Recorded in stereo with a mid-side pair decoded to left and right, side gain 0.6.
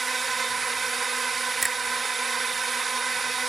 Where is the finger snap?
10° right.